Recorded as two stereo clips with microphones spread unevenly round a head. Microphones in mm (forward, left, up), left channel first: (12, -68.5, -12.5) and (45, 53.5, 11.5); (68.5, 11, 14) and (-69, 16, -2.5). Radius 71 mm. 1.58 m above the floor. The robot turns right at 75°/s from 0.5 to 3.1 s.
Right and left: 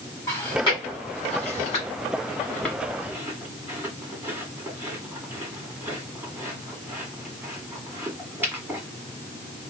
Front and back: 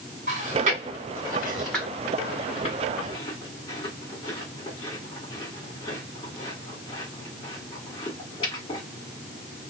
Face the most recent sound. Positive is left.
turn(degrees=20)